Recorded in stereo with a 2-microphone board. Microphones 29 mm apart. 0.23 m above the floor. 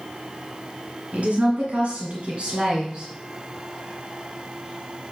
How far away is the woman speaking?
About 2.5 m.